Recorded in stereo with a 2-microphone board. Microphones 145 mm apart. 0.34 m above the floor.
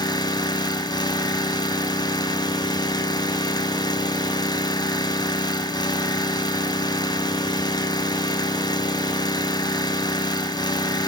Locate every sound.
0.0 s an engine running: 30° left (ahead or behind), 1.0 m